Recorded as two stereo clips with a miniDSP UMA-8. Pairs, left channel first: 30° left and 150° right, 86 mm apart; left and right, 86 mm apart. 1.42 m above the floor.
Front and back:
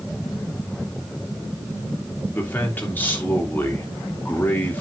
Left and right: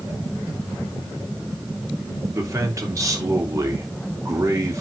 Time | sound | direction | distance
2.3 | a man speaking | 40° right | 3 m